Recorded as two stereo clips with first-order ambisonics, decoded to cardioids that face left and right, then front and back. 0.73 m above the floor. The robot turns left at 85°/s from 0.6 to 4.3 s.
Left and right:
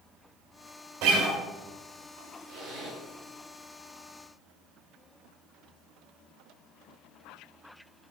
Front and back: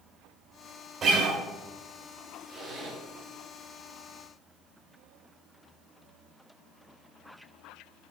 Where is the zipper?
100° right, 2.5 m; by 3.0 s 145° right, 2.5 m.